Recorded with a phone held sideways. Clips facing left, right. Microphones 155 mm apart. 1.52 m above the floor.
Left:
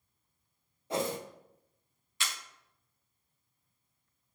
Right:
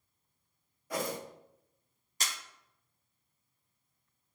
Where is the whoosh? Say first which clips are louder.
Left 3 dB; 25° left (ahead or behind), 0.5 m.